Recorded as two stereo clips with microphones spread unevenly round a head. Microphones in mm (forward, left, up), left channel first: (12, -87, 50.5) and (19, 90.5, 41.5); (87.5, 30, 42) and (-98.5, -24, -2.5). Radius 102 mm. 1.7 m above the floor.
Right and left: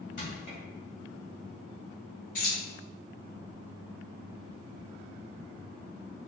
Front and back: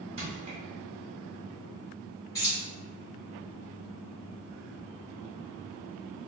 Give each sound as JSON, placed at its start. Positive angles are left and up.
{"t": 0.2, "sound": "crushing", "azimuth_deg": -100, "distance_m": 1.6}
{"t": 2.4, "sound": "keys jangling", "azimuth_deg": -50, "distance_m": 1.5}